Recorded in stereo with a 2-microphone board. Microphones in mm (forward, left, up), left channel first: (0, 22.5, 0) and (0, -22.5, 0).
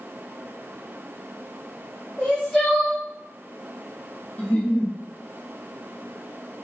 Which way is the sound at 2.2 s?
5° left (ahead or behind).